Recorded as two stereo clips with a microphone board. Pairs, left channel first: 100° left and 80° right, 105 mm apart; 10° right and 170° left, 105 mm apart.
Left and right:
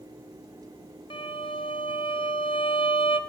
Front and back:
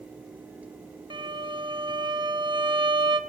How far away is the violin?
About 0.7 m.